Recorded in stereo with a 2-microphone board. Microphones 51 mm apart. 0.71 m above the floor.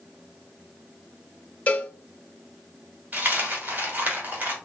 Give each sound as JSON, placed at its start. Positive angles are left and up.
{"t": 1.7, "sound": "a cowbell", "side_deg": 35, "distance_m": 0.7}
{"t": 3.1, "sound": "a dropped coin", "side_deg": -35, "distance_m": 1.3}